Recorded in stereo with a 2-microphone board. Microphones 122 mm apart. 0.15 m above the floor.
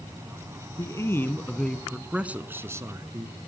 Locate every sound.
0.8 s a man speaking: 30° left (ahead or behind), 1.2 m; by 3.5 s 35° right (ahead or behind), 1.7 m